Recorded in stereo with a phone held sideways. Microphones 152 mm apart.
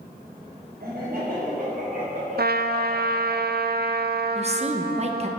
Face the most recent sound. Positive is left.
turn(degrees=-40)  # may be behind; listen again after turning